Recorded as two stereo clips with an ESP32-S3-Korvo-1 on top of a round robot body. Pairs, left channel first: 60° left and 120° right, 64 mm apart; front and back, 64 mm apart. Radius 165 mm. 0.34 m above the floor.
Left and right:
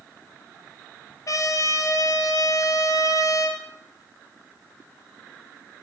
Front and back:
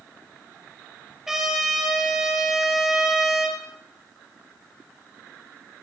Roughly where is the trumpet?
Left.